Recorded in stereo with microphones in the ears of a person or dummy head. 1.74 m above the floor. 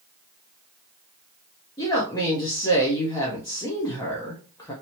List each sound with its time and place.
1.8 s a woman speaking: 15° left (ahead or behind), 0.7 m